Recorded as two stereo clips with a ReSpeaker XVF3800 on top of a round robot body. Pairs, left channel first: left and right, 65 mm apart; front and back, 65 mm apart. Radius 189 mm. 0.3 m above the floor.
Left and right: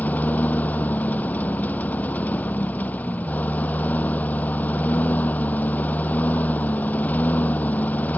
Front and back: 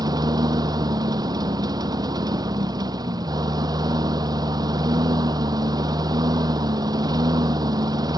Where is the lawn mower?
155° left.